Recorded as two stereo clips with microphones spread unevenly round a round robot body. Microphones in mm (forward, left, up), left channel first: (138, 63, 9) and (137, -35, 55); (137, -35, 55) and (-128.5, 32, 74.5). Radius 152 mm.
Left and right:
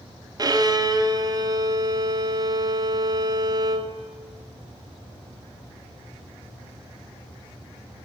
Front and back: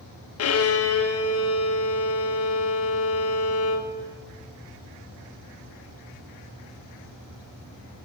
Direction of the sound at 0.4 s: 25° right.